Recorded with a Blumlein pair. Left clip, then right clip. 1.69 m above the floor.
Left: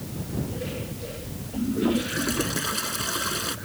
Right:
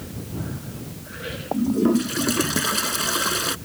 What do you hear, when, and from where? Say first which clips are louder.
1.5 s a toilet flushing: right 3 dB; 15° right